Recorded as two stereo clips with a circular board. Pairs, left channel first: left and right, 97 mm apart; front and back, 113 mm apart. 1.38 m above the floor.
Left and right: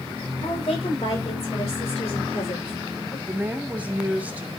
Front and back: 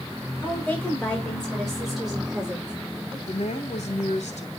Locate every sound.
0.4 s a woman speaking: 75° left, 6 m; by 3.2 s 105° left, 6.5 m
3.3 s a woman speaking: 15° right, 3 m